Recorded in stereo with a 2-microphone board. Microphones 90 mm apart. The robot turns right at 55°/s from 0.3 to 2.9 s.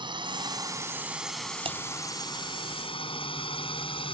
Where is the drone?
60° right (ahead or behind); by 4.1 s 80° left.